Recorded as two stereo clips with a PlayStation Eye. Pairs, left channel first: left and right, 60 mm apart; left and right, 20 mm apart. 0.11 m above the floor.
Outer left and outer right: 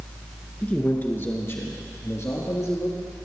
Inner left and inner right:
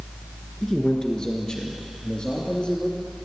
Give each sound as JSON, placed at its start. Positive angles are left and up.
{"t": 0.6, "sound": "a man speaking", "side_deg": 20, "distance_m": 1.6}